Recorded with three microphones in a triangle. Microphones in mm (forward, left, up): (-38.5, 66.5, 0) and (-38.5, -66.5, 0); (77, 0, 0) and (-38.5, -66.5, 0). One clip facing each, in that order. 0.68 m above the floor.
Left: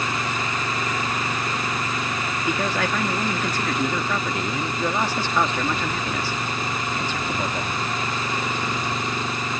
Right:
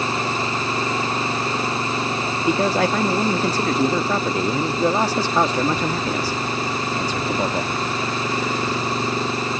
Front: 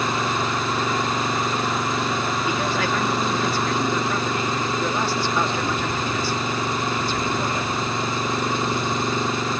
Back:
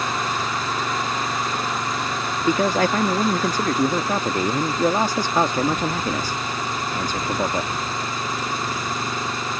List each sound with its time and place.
0.0 s an engine running: 35° right
2.4 s a man speaking: 130° right